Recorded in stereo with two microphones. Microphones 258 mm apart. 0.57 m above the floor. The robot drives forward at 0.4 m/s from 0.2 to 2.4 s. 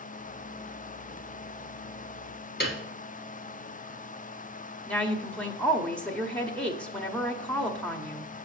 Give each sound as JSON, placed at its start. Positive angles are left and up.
{"t": 2.6, "sound": "a piano", "side_deg": 40, "distance_m": 1.6}
{"t": 4.9, "sound": "a woman speaking", "side_deg": 5, "distance_m": 0.9}